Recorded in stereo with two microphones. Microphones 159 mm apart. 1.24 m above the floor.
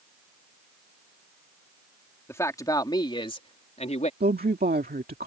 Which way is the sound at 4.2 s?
75° right (ahead or behind).